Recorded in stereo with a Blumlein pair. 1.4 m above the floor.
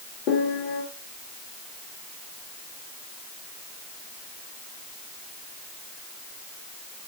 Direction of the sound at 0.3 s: 40° left.